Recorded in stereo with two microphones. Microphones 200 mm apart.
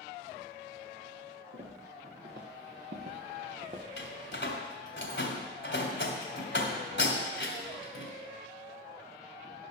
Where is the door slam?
65° left (ahead or behind), 1.7 m.